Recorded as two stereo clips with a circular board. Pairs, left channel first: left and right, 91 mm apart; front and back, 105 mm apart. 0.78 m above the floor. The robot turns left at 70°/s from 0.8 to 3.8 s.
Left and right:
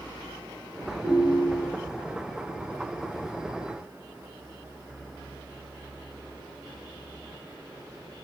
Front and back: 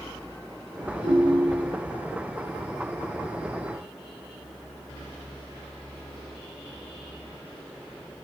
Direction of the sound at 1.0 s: 10° right.